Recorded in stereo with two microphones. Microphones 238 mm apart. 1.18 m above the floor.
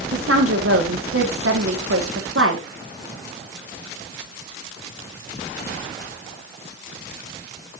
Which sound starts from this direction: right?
A woman speaking, at 0.1 s.